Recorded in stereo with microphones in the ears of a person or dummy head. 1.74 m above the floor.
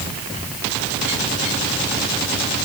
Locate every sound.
Only background noise.